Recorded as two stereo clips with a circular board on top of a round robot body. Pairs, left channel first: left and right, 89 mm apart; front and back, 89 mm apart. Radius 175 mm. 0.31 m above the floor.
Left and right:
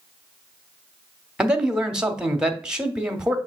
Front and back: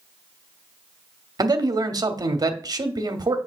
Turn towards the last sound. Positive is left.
turn(degrees=-170)